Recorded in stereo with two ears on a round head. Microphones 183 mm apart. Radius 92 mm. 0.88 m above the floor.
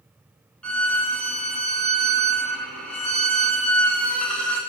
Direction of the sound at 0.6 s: 5° left (ahead or behind).